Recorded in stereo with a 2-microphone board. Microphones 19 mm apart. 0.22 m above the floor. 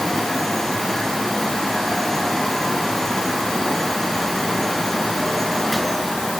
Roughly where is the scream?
I don't hear a scream.